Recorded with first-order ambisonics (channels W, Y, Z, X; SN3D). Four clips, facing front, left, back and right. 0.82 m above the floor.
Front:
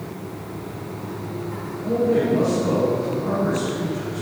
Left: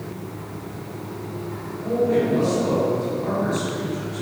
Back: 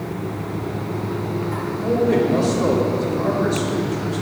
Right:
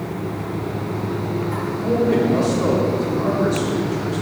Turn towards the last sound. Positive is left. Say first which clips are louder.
# right 2 dB, back 1 dB
turn(degrees=-140)